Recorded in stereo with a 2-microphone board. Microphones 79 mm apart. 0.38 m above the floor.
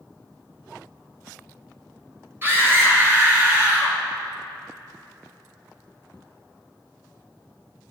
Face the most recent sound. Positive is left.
turn(degrees=-20)  # may be behind; listen again after turning